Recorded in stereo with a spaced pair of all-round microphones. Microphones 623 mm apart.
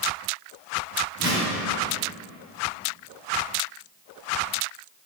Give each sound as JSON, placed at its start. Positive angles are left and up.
{"t": 1.2, "sound": "a whoosh", "side_deg": 35, "distance_m": 2.0}